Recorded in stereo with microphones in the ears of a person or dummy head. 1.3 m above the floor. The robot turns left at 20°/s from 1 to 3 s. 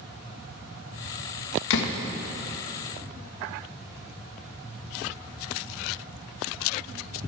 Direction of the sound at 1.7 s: 70° left (ahead or behind).